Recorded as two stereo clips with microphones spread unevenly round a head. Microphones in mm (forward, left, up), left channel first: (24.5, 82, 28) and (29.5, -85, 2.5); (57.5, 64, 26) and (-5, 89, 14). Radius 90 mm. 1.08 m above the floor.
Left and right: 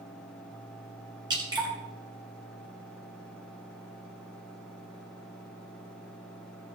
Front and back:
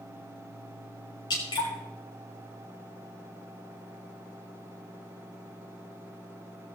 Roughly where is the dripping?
Ahead.